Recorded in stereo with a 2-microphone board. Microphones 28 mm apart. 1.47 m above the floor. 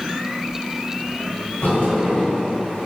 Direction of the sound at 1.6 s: 75° left (ahead or behind).